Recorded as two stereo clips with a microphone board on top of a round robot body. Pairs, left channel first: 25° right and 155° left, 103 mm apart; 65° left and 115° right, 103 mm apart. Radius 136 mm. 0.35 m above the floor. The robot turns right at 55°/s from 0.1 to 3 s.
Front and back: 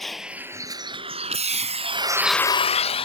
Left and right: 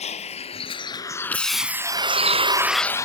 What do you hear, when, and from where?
0.0 s a vehicle: 65° left; by 3.1 s 10° left